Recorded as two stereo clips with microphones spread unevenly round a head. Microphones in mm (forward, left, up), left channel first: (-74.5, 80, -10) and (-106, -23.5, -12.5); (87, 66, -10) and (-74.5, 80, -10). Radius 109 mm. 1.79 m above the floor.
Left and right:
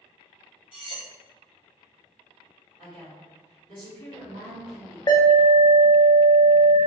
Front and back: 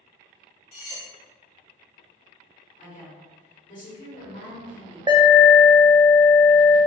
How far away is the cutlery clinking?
About 1.2 m.